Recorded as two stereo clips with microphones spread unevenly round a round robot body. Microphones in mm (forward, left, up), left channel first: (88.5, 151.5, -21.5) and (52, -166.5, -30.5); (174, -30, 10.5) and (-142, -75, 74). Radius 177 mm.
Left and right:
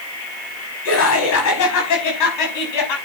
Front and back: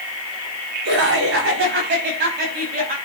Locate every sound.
0.8 s laughter: 135° left, 5 m; by 3.0 s 120° left, 5.5 m